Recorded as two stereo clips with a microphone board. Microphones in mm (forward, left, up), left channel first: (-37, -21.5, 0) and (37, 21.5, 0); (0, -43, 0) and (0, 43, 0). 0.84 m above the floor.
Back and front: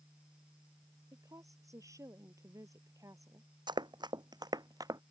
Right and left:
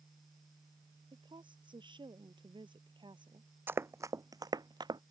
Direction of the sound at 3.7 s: 30° left.